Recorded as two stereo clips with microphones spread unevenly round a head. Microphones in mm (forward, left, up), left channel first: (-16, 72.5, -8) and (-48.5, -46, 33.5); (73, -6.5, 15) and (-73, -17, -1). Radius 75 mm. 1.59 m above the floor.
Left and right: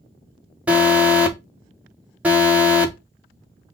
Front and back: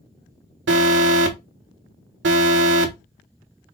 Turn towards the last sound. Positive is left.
turn(degrees=-175)